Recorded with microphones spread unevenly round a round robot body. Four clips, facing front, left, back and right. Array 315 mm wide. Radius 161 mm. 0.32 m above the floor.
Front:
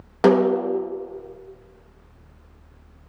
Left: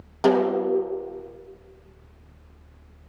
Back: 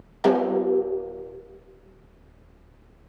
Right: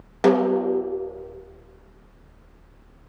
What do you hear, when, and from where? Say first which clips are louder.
0.2 s a snare drum: right 1 dB, front 3 dB; 15° right, 4 m